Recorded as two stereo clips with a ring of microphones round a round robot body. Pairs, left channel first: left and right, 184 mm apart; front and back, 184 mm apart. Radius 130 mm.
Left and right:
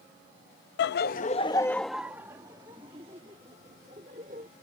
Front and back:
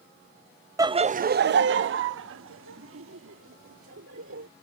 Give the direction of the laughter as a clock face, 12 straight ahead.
8 o'clock.